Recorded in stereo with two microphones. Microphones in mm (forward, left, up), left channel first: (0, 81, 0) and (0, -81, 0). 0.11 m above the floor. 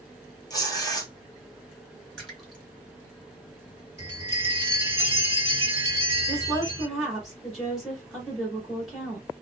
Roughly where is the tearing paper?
Left.